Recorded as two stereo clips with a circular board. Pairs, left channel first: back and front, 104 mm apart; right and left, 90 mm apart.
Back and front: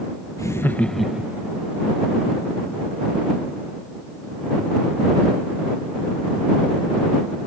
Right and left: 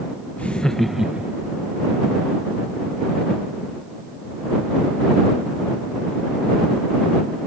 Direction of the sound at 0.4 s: 150° right.